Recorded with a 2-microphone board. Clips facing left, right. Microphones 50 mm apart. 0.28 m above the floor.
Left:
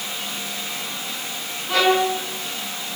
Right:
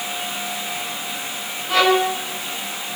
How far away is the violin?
About 3.5 m.